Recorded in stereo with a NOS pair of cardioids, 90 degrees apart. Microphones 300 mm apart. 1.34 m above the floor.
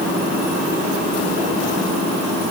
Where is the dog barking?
I don't hear a dog barking.